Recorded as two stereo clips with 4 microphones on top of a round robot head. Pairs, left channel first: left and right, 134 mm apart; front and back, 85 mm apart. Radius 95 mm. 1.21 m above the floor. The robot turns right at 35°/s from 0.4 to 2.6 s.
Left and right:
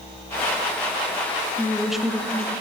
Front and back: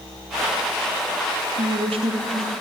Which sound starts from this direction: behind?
A woman speaking, at 1.6 s.